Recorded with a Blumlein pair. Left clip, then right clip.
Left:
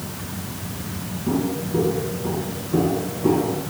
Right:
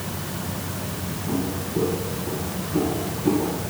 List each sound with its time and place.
1.3 s footsteps: 35° left, 8.5 m